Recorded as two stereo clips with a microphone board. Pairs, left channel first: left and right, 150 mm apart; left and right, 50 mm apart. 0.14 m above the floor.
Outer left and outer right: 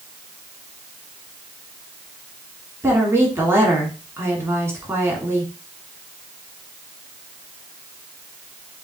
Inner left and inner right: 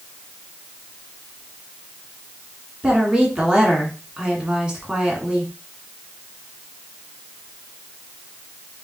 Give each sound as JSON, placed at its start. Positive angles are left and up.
{"t": 2.8, "sound": "a woman speaking", "side_deg": -20, "distance_m": 1.7}